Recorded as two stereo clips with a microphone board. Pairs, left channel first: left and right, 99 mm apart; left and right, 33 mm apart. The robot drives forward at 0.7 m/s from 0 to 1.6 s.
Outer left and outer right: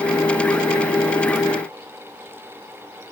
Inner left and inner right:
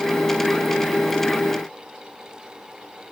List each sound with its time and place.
Only background noise.